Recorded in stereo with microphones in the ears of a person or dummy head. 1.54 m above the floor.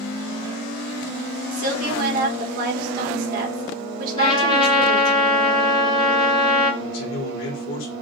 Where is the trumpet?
25° left (ahead or behind), 0.9 m.